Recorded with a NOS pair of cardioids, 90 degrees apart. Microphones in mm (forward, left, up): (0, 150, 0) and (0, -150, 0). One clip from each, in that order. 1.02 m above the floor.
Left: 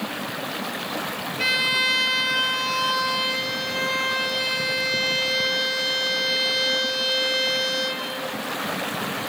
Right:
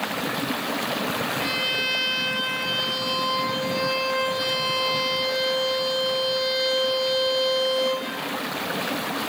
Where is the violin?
70° left, 8 m.